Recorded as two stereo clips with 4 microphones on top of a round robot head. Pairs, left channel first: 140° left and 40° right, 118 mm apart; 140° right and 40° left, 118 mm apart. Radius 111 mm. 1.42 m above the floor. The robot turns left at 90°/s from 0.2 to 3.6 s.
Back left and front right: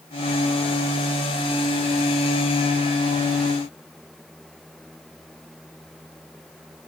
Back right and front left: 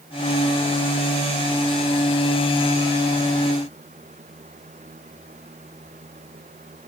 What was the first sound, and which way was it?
Only background noise.